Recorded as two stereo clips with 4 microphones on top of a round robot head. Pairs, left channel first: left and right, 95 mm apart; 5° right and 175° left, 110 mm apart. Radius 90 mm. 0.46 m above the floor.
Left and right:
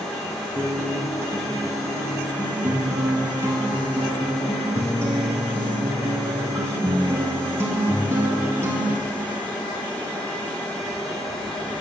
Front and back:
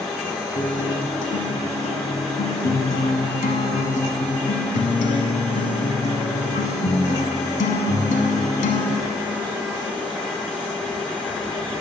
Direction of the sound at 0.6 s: 15° right.